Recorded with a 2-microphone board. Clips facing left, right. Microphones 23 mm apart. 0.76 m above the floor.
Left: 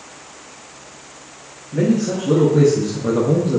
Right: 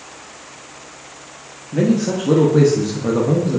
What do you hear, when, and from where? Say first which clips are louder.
1.7 s a man speaking: right 1 dB; 50° right (ahead or behind), 0.9 m; by 3.6 s 10° left (ahead or behind), 0.7 m